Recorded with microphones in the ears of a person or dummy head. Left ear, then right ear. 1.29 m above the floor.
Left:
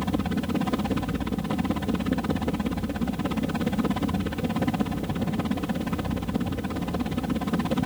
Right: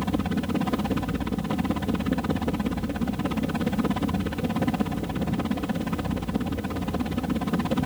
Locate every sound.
0.0 s a helicopter: centre (ahead or behind)